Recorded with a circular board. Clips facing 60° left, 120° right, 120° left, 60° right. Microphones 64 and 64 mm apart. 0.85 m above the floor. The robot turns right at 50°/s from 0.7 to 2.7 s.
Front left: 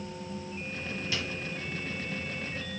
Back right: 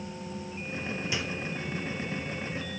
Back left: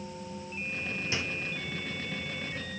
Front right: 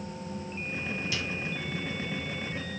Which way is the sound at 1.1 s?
175° left.